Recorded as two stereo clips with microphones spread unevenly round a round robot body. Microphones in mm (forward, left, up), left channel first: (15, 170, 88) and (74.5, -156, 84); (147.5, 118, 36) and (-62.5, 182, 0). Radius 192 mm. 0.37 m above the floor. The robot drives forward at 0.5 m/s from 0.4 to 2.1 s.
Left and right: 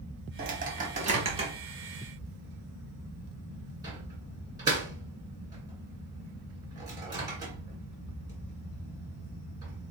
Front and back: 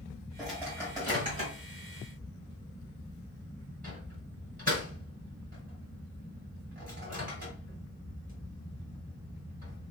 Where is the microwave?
120° right, 1.1 m; by 9.9 s 155° right, 1.6 m.